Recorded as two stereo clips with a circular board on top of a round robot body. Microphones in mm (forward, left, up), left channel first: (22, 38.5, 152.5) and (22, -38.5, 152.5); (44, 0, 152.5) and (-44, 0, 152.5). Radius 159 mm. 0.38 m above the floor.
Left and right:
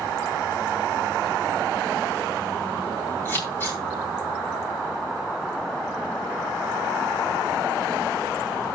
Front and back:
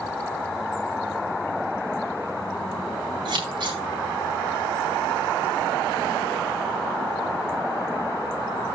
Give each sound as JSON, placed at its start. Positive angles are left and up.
{"t": 3.2, "sound": "scissors", "azimuth_deg": 150, "distance_m": 7.5}